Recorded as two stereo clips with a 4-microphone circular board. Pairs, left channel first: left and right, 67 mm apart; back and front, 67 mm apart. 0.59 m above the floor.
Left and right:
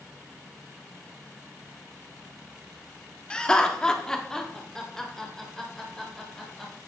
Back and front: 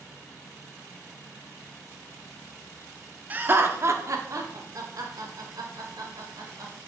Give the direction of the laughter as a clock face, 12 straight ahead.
11 o'clock.